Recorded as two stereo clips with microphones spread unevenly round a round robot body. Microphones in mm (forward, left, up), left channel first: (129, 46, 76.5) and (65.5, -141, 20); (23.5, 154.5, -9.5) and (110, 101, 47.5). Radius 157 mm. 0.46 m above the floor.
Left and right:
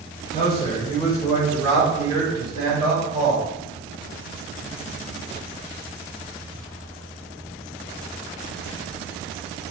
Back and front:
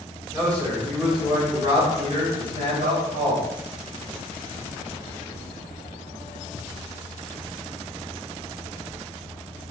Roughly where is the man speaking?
Behind left.